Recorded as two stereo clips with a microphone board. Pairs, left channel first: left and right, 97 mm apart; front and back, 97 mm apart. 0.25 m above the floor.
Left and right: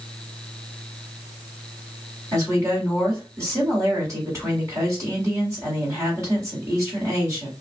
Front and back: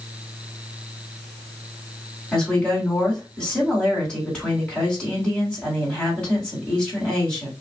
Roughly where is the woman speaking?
Right.